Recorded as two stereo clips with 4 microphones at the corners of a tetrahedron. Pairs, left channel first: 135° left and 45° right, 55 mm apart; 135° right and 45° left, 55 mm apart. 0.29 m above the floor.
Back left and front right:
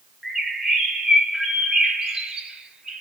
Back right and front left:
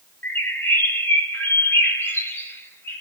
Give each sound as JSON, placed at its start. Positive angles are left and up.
{"t": 0.2, "sound": "a bird", "azimuth_deg": -120, "distance_m": 1.1}